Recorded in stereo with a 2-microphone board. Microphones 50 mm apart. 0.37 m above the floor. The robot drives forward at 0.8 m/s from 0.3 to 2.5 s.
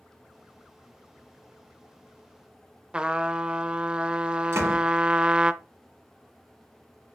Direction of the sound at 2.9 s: 20° right (ahead or behind).